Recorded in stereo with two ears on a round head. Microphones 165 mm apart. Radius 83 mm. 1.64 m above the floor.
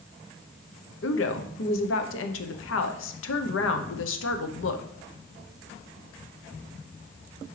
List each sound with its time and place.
1.0 s a woman speaking: 75° left (ahead or behind), 0.9 m